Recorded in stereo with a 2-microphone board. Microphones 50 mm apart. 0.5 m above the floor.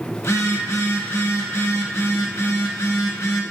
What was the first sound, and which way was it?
A phone buzzing, 75° left (ahead or behind).